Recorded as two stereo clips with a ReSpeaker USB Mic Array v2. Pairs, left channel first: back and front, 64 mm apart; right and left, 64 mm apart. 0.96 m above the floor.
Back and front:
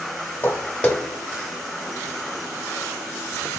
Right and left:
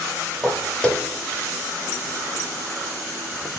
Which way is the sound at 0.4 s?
Straight behind.